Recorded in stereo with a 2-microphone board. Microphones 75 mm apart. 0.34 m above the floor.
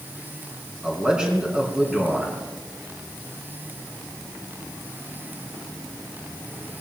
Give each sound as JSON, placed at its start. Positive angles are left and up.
{"t": 0.8, "sound": "a man speaking", "side_deg": -10, "distance_m": 4.0}